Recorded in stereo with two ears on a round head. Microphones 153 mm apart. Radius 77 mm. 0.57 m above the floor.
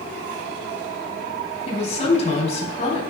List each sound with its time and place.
1.7 s a woman speaking: 40° left (ahead or behind), 3.5 m